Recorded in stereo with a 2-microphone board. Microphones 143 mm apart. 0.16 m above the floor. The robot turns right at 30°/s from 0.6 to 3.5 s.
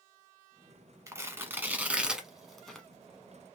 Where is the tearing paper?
20° right (ahead or behind), 0.9 m; by 2.9 s 5° left (ahead or behind), 0.9 m.